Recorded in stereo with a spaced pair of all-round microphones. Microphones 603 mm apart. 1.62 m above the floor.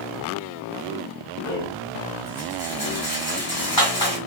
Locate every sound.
1.4 s a rattle: 45° left (ahead or behind), 1.8 m